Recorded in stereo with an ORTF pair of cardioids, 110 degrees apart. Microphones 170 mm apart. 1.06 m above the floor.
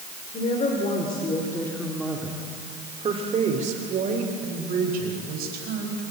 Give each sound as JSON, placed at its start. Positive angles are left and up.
{"t": 0.3, "sound": "a woman speaking", "azimuth_deg": 45, "distance_m": 3.5}